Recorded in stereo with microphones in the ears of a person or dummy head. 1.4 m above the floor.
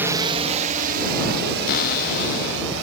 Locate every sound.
0.0 s a drone: 10° right (ahead or behind); by 2.8 s 65° right (ahead or behind)
1.7 s a cupboard door: 50° left (ahead or behind)